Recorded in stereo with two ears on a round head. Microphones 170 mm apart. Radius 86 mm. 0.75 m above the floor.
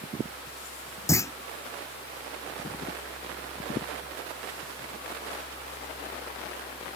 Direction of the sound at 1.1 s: 15° left (ahead or behind).